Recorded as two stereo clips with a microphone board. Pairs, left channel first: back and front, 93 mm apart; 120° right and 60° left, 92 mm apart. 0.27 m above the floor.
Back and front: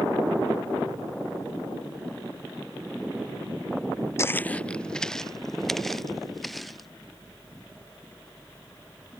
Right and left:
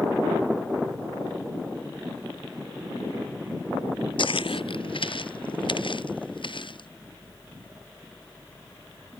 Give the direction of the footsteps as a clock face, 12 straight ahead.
4 o'clock.